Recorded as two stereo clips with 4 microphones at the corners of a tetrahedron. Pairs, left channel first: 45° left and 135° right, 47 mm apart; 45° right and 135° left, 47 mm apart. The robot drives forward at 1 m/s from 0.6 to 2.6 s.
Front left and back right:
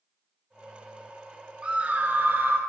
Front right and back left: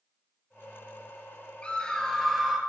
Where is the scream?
90° right, 1.4 m; by 2.6 s 140° right, 1.7 m.